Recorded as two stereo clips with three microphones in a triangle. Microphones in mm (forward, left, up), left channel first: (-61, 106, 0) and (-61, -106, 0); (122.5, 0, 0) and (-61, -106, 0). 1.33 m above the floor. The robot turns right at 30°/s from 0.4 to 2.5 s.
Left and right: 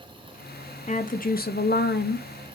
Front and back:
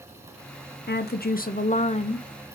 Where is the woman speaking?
45° left, 0.6 m; by 2.3 s 90° left, 0.6 m.